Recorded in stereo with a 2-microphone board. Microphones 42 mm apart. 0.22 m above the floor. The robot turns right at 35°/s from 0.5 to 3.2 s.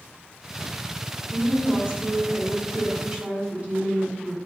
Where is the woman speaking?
125° right, 2 m; by 4.3 s 60° right, 2 m.